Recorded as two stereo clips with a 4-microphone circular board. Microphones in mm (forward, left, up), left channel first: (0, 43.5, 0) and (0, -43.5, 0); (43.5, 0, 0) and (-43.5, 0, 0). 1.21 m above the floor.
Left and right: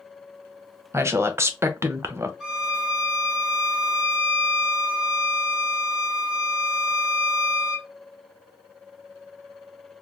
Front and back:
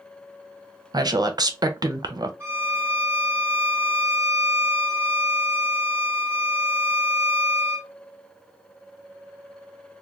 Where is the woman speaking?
145° right, 0.6 m.